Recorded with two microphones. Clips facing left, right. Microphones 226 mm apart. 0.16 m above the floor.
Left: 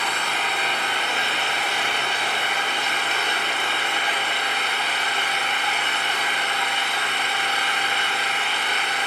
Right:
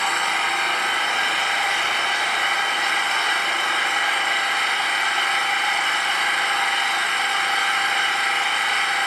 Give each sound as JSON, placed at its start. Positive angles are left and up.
{"t": 0.0, "sound": "an engine running", "side_deg": 30, "distance_m": 9.5}